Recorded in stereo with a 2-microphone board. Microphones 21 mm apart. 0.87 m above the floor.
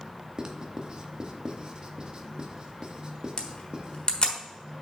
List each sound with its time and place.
0.4 s writing: 40° right (ahead or behind), 0.8 m
3.4 s a camera shutter: 45° left (ahead or behind), 1.2 m